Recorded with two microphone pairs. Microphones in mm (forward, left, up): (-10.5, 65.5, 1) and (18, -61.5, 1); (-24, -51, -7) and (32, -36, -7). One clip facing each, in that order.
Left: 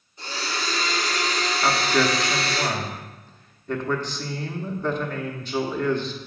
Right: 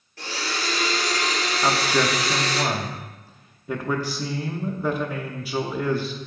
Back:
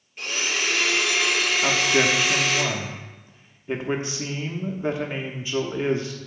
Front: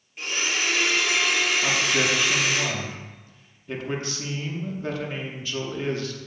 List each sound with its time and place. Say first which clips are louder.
0.2 s a blender: right 1 dB, even; 75° right, 3 m
1.6 s a man speaking: even, back 3 dB; 145° right, 0.8 m